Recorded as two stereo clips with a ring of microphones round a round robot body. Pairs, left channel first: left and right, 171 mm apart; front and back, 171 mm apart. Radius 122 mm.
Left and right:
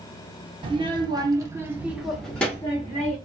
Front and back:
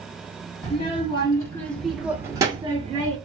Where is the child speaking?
40° right, 1.0 m; by 3.2 s 150° left, 0.9 m.